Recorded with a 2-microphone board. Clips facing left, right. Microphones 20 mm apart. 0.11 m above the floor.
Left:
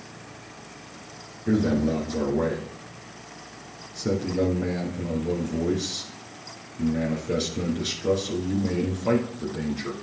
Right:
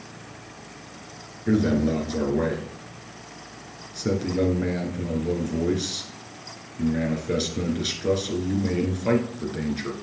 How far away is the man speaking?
About 2 m.